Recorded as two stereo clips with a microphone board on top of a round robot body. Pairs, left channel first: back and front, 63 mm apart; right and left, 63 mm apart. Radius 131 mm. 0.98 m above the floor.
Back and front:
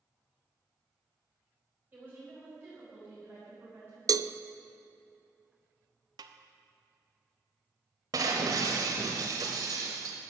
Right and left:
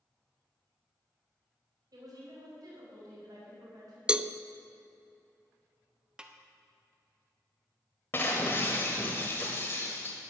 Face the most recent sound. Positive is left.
turn(degrees=-30)